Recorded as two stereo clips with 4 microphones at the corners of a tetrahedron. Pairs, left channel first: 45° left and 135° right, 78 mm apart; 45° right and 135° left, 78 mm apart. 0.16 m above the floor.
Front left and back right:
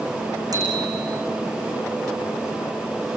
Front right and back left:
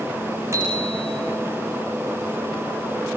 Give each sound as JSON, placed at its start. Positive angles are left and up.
{"t": 0.5, "sound": "a bicycle bell", "azimuth_deg": -170, "distance_m": 9.0}